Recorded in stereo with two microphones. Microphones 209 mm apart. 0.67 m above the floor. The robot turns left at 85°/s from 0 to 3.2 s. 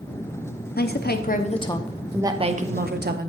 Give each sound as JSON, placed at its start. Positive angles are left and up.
{"t": 0.8, "sound": "a woman speaking", "azimuth_deg": 105, "distance_m": 0.8}